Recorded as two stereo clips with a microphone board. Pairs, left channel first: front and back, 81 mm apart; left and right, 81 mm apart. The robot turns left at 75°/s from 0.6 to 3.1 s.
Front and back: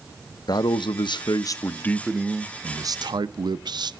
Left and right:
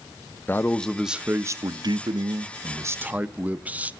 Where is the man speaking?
25° left, 0.5 m; by 3.9 s 160° right, 0.5 m.